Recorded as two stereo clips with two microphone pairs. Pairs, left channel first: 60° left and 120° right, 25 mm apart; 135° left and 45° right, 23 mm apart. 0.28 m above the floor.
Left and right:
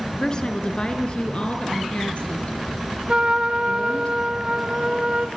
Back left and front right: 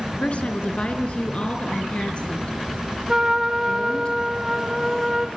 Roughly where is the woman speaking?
Behind left.